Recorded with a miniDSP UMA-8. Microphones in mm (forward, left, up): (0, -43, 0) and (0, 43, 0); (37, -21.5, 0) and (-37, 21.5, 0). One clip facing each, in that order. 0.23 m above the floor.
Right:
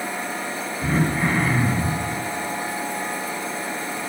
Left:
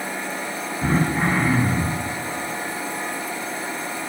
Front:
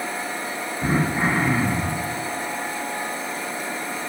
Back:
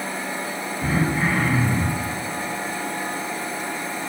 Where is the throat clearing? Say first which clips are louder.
Left 1 dB, front 1 dB; 30° left, 9 m.